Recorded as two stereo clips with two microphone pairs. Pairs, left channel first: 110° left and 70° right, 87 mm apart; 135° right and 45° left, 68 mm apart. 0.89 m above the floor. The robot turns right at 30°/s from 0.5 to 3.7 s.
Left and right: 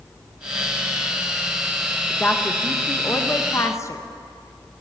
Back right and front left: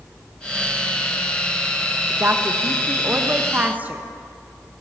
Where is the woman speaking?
45° left, 1.0 m; by 4.0 s 95° left, 1.0 m.